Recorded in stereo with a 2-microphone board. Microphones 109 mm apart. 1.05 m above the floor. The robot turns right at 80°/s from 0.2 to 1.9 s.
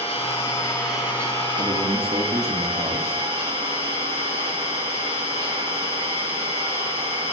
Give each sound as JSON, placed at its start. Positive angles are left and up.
{"t": 0.0, "sound": "an engine running", "azimuth_deg": 120, "distance_m": 5.5}
{"t": 1.6, "sound": "a man speaking", "side_deg": -75, "distance_m": 2.0}